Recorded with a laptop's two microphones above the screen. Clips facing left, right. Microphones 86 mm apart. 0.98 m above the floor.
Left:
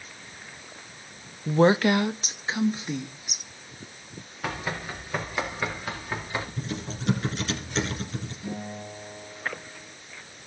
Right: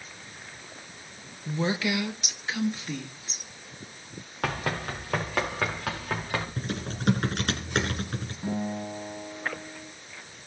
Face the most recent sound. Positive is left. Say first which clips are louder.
# right 8 dB
turn(degrees=-40)  # may be behind; listen again after turning